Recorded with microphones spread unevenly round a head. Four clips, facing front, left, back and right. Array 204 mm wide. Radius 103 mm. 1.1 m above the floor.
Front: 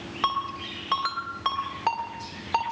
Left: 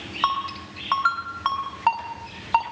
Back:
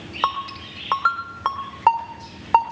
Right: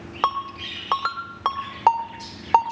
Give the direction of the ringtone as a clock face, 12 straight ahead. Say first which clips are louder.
Even, back 3 dB; 4 o'clock.